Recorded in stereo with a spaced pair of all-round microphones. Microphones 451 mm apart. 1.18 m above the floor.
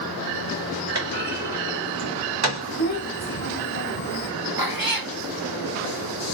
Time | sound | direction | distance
0.9 | a clunk | 65° right (ahead or behind) | 2.5 m
2.8 | a child speaking | 40° left (ahead or behind) | 2.5 m
4.6 | a cat meowing | 55° right (ahead or behind) | 0.9 m